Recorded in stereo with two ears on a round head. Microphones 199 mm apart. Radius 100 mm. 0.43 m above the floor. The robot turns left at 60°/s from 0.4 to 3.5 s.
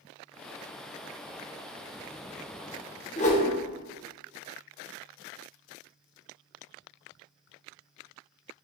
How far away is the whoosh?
About 0.5 m.